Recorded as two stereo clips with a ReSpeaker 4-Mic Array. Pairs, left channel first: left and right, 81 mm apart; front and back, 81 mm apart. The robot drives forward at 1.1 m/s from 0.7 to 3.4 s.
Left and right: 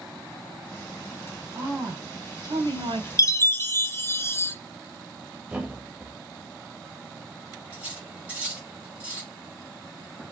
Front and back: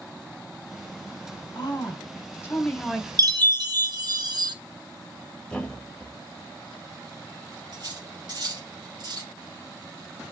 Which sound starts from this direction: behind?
Cutlery clinking, at 7.7 s.